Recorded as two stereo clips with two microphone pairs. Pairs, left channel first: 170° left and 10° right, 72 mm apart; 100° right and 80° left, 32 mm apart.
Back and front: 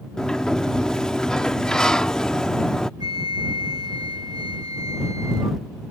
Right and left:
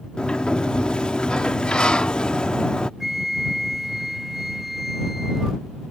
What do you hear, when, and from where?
0.2 s a sliding door: 120° right
3.0 s a flute: straight ahead